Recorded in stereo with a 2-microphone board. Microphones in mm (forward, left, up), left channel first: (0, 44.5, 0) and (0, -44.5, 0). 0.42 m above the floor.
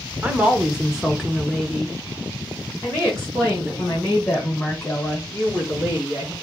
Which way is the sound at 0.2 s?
15° right (ahead or behind).